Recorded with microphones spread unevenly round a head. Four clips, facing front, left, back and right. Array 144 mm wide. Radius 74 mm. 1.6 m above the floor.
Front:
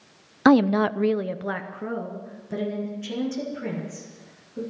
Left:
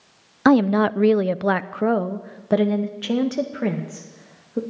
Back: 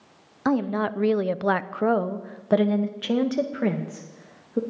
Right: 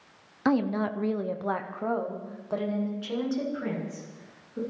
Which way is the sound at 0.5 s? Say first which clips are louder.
Left 9 dB, front 6 dB; 35° left.